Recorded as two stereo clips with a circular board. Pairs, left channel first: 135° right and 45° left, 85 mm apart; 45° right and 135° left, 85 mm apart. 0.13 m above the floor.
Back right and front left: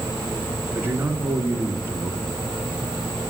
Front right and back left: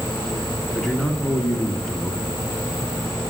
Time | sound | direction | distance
0.8 | a man speaking | 35° left | 1.6 m